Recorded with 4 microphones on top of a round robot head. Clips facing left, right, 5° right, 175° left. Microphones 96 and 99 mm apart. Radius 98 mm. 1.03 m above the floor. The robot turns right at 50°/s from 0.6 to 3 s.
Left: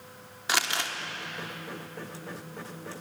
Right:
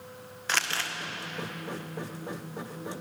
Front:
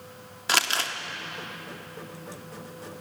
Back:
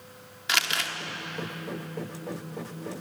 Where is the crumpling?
20° left, 1.0 m; by 0.9 s 35° left, 1.0 m.